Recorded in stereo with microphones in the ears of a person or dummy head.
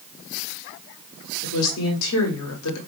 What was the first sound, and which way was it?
A woman speaking, 80° left.